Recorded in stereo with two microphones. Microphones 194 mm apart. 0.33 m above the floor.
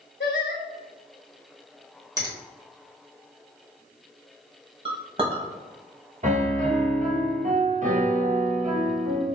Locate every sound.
0.2 s singing: 80° left, 0.9 m
2.2 s a finger snap: 20° right (ahead or behind), 1.1 m
4.8 s a clink: 30° right (ahead or behind), 0.9 m
6.2 s a piano: 45° right (ahead or behind), 1.0 m